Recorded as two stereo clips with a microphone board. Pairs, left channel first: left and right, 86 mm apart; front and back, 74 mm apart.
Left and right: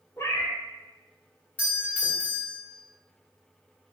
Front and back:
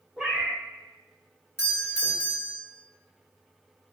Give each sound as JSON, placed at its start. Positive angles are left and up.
{"t": 0.2, "sound": "a cat meowing", "azimuth_deg": 110, "distance_m": 0.7}
{"t": 1.6, "sound": "a doorbell", "azimuth_deg": 35, "distance_m": 2.0}